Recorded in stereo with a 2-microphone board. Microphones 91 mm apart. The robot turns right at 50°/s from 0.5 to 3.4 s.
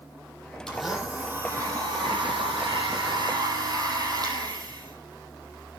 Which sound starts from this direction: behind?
A blender, at 0.7 s.